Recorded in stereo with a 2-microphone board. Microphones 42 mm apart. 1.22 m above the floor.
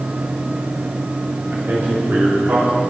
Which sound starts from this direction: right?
A man speaking, at 1.5 s.